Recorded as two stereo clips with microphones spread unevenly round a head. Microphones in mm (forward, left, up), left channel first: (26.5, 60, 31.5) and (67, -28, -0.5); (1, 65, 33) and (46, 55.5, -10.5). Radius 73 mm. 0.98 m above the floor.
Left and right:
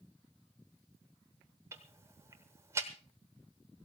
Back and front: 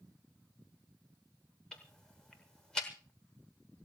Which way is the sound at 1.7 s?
145° right.